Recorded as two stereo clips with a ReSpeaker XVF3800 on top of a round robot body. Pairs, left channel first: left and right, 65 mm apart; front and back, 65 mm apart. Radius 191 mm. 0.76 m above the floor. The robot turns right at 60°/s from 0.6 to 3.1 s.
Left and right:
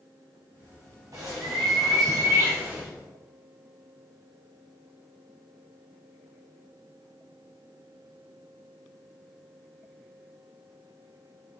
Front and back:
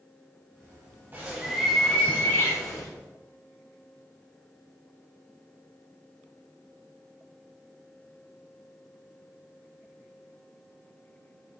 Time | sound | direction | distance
1.1 | a bird | 125° right | 0.8 m